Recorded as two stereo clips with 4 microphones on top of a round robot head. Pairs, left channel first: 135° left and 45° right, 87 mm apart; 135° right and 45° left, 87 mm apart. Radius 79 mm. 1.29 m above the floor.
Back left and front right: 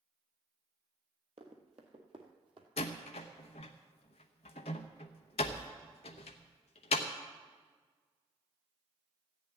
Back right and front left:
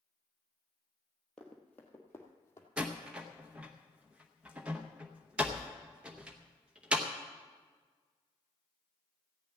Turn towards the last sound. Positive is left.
turn(degrees=125)